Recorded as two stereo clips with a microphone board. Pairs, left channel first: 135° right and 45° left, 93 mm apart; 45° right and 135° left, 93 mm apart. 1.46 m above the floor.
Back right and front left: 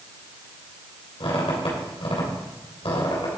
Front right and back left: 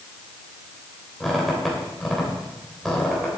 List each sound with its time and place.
1.2 s a squeak: 135° right, 3 m